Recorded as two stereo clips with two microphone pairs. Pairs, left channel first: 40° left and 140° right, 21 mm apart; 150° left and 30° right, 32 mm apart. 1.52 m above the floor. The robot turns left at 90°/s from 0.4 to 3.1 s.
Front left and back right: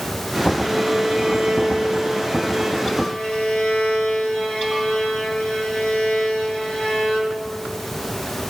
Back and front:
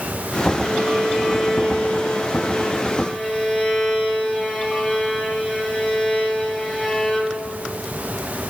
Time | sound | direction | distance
0.6 | a violin | 50° right | 4.5 m